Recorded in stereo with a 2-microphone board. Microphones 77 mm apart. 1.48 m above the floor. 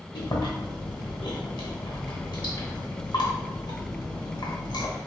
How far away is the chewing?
About 1.1 m.